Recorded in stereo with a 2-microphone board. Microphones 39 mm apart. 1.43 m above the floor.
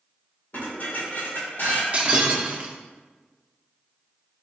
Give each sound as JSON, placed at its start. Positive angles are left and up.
{"t": 0.5, "sound": "dishes clattering", "side_deg": 65, "distance_m": 1.7}
{"t": 1.9, "sound": "breaking glass", "side_deg": -35, "distance_m": 0.7}